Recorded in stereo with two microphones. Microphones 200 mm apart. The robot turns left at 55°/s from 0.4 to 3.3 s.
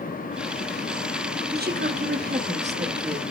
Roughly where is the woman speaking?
Right.